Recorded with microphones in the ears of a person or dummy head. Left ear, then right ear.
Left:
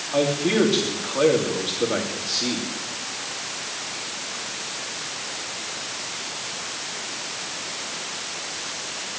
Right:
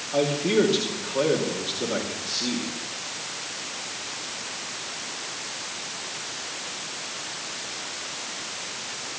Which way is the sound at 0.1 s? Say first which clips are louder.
Left 1 dB; 15° left (ahead or behind).